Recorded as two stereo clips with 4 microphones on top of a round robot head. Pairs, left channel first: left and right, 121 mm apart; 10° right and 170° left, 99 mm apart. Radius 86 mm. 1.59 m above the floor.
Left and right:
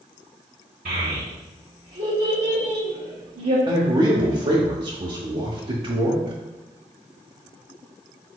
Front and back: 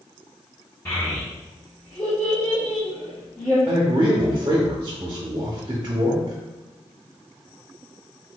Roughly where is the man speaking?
Behind right.